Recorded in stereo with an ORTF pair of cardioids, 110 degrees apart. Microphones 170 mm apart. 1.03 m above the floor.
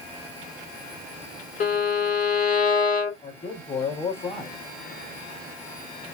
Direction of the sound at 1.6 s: 45° left.